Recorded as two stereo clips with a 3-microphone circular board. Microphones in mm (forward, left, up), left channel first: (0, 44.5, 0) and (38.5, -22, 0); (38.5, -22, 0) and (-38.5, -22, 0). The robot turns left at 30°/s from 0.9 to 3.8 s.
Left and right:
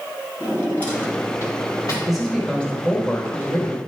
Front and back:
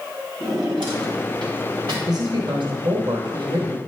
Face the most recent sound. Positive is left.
turn(degrees=165)